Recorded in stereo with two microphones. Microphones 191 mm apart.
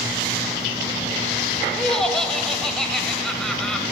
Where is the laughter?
5° left (ahead or behind), 1.0 m.